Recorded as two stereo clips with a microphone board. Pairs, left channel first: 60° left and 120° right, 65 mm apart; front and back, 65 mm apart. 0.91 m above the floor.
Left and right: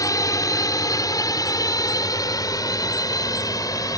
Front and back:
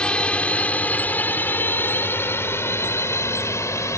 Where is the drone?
75° left; by 4.0 s 40° left.